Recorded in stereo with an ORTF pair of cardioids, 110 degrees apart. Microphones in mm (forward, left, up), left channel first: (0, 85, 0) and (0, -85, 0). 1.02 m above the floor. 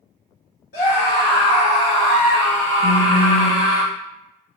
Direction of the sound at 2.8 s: 55° left.